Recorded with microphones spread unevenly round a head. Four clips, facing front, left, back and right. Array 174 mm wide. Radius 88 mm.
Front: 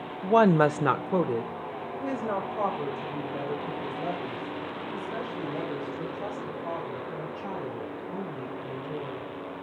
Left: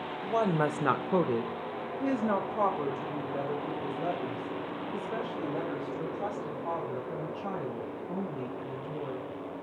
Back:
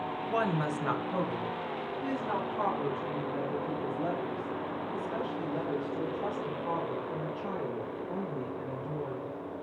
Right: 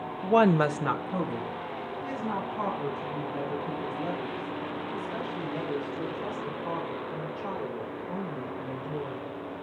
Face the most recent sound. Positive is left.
turn(degrees=80)